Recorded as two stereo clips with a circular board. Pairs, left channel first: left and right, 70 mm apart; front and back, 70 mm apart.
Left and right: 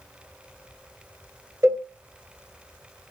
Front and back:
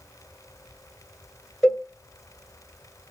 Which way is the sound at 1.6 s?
80° right.